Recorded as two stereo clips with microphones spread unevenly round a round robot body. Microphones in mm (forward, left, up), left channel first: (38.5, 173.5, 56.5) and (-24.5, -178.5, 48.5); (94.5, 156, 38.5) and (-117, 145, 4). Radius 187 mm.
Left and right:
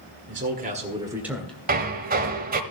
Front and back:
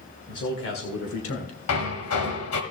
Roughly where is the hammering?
Ahead right.